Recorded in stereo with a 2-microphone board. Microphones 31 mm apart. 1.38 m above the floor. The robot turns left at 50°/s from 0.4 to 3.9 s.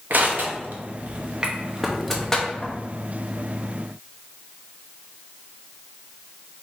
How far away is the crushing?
About 0.8 m.